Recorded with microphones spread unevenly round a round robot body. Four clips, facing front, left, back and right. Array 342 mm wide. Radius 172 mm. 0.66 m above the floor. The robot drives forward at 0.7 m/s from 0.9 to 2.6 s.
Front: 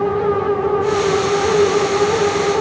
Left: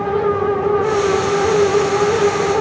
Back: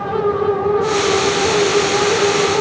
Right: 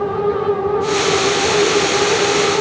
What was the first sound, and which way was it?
Only background noise.